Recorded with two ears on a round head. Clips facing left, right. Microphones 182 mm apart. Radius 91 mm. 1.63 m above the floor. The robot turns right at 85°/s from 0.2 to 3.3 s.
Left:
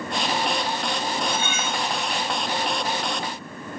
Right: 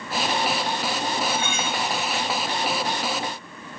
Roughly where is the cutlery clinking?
Ahead.